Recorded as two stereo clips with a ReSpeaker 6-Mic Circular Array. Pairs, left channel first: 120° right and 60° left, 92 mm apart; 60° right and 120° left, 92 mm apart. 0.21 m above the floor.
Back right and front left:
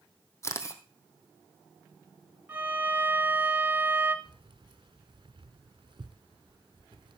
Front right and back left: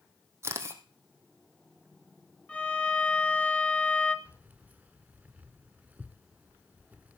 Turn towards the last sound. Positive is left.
turn(degrees=45)